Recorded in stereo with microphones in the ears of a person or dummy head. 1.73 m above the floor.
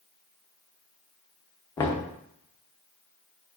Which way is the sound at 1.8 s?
20° left (ahead or behind).